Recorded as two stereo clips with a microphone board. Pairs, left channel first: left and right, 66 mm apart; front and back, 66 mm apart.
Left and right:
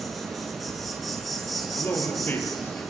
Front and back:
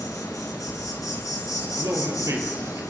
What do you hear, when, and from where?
0.0 s an insect: 5° right, 4.5 m
1.6 s a man speaking: 145° left, 5 m